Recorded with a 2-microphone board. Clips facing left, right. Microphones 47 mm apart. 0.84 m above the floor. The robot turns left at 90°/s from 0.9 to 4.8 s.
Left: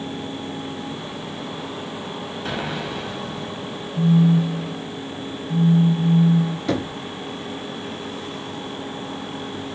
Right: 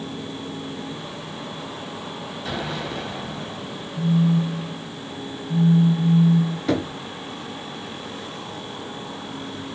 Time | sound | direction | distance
2.5 | an explosion | 50° left | 1.7 m
4.0 | a phone buzzing | 75° left | 0.6 m
6.7 | knocking | centre (ahead or behind) | 0.9 m